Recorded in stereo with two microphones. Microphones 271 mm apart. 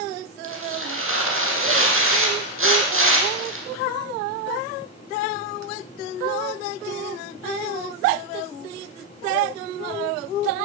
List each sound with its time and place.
0.4 s tearing paper: 50° right (ahead or behind), 7.5 m